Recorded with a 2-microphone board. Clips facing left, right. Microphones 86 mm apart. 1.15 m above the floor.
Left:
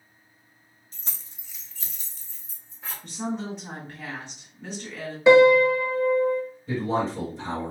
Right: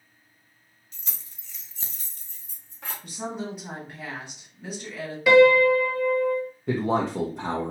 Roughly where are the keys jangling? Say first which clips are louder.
Left 2 dB; left.